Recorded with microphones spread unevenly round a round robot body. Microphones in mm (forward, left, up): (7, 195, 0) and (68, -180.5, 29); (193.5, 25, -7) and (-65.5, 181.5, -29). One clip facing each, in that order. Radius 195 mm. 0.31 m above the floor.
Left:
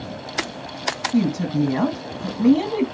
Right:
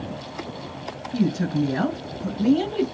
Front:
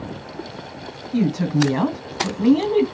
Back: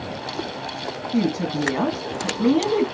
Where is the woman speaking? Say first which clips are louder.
Left 3 dB, front 3 dB; 35° left, 2.5 m.